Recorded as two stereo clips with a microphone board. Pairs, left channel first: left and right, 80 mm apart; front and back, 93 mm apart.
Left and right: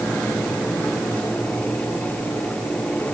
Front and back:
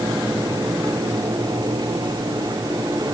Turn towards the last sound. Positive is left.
No sound to turn to.